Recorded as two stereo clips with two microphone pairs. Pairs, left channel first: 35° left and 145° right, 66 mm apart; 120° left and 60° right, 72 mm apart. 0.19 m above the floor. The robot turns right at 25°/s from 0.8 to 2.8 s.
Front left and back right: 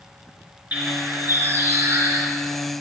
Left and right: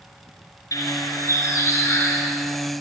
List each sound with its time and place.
0.7 s a bird: 150° left, 3 m; by 2.3 s 175° right, 3 m